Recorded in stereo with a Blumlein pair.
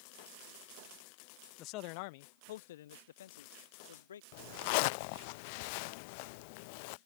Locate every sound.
1.6 s a man speaking: 35° left; by 4.2 s 65° left
4.3 s a zipper: 45° left